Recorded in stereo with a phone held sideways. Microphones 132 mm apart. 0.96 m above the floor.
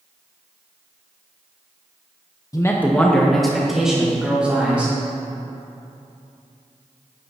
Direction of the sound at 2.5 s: 25° left (ahead or behind).